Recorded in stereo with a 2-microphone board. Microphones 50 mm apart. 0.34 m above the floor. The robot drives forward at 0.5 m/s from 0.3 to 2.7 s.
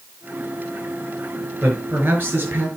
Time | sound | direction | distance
1.6 | a man speaking | 40° right (ahead or behind) | 6 m